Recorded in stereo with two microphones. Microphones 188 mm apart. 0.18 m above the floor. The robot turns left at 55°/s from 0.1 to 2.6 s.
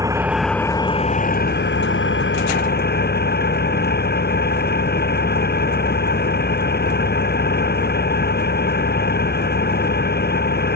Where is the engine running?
165° right; by 10.8 s 60° left.